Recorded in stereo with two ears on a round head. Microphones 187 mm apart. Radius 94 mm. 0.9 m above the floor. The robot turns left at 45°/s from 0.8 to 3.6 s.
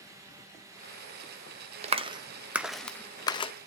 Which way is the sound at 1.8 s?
30° right (ahead or behind).